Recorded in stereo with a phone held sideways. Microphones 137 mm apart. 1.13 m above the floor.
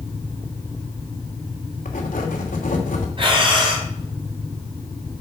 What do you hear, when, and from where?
1.9 s writing: 80° left, 2.5 m
3.2 s breathing: 40° right (ahead or behind), 3.5 m